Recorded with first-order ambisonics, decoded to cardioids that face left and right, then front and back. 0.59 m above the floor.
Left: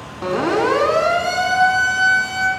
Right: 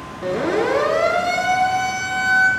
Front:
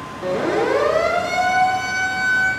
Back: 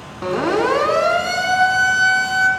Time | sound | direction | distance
0.2 | a siren | 135° left | 4.5 m